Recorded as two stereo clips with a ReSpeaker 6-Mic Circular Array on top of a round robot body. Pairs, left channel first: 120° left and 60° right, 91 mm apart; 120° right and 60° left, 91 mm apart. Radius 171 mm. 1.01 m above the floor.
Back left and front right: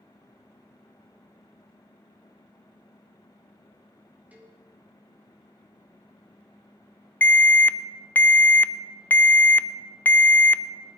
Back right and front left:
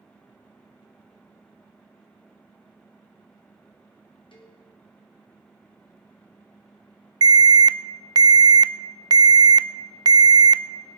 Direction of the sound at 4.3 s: 135° right.